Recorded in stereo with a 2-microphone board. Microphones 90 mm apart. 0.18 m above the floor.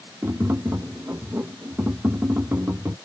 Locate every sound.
0.2 s tapping: 30° right (ahead or behind)